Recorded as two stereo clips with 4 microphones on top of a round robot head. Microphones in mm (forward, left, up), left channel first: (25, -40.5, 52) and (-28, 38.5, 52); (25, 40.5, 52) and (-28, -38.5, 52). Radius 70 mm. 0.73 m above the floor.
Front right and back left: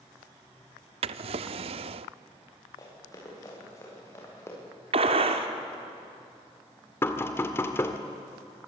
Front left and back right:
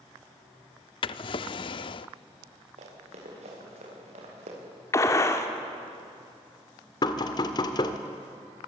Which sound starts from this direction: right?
Running footsteps, at 2.8 s.